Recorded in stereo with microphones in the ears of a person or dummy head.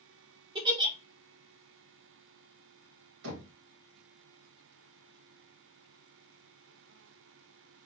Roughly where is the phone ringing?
No phone ringing in this recording.